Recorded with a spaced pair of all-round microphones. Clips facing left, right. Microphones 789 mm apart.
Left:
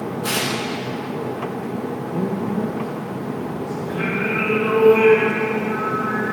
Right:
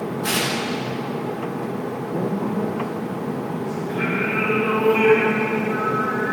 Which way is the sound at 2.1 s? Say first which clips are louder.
Even; 50° left (ahead or behind).